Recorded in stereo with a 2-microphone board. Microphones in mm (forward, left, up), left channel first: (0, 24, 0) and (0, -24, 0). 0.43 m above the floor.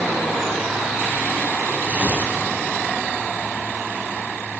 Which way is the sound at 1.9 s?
30° right (ahead or behind).